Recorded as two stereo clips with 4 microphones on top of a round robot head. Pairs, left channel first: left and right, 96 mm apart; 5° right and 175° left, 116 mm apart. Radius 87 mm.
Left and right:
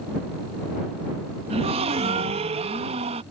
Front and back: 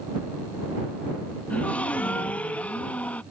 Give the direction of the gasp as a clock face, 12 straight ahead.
3 o'clock.